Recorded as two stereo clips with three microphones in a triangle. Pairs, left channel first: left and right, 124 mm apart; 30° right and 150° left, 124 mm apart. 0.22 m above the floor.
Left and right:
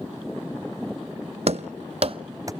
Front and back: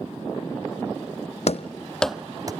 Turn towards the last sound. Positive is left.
turn(degrees=-150)